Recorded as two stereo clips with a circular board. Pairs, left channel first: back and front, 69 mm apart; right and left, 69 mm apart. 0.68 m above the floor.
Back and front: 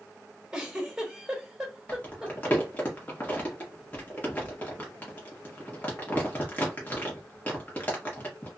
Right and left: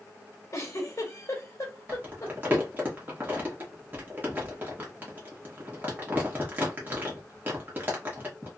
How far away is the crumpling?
About 1.2 m.